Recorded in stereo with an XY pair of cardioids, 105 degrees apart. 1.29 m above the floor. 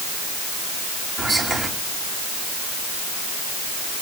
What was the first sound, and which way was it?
Whispering, 35° right.